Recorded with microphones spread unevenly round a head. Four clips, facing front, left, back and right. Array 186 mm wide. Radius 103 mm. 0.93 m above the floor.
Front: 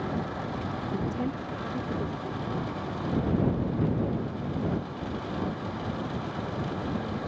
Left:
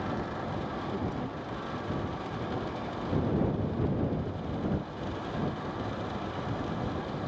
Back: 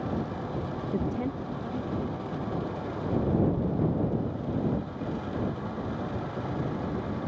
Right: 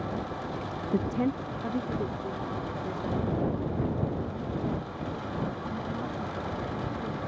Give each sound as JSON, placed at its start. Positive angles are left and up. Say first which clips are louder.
{"t": 0.9, "sound": "a woman speaking", "louder": "right 6 dB, back 2 dB", "azimuth_deg": -90}